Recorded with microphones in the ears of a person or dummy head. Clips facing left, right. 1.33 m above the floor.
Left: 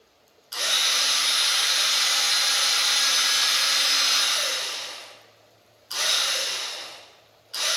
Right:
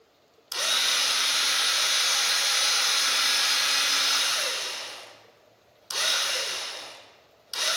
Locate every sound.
0.5 s a drill: 70° right (ahead or behind), 2 m